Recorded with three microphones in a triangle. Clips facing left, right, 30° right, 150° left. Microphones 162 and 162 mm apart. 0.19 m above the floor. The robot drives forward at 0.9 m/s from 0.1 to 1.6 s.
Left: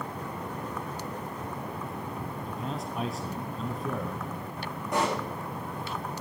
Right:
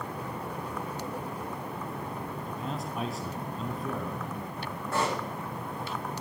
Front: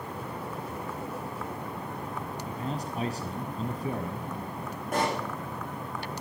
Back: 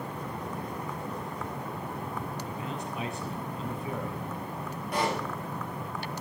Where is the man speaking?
Straight ahead, 1.3 m.